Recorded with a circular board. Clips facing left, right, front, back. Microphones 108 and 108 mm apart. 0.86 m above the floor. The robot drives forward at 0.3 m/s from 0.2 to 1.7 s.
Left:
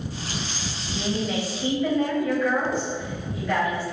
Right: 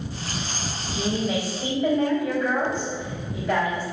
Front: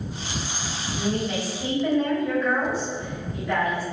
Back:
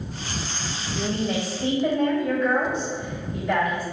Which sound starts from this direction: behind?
A woman speaking, at 0.9 s.